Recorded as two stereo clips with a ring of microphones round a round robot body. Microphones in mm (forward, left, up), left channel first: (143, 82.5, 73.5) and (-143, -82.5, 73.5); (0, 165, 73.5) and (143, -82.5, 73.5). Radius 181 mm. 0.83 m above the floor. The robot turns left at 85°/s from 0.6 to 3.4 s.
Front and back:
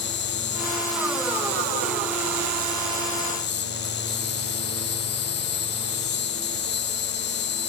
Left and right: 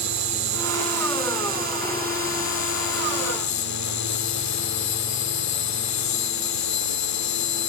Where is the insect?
30° right; by 7.7 s 90° left.